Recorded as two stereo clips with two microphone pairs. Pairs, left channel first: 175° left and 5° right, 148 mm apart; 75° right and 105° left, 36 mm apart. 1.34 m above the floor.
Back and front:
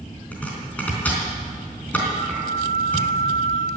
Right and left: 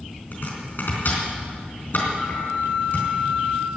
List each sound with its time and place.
0.3 s chopping: 105° right, 4 m
2.2 s a flute: 130° right, 3.5 m